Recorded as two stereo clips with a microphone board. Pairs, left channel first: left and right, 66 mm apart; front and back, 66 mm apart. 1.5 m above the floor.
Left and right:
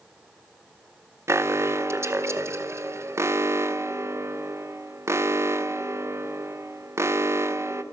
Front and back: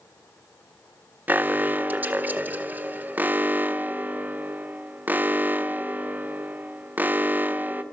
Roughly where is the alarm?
Behind right.